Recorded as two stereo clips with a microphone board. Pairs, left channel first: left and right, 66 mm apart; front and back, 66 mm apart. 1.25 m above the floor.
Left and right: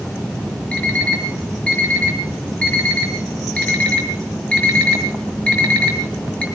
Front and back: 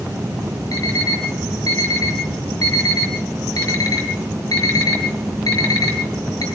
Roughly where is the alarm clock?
Ahead.